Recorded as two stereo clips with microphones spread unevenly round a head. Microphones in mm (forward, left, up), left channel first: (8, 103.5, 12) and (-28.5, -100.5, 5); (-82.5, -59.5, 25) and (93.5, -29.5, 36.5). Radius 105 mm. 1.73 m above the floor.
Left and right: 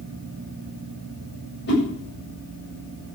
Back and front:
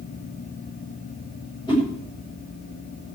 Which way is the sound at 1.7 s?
120° left.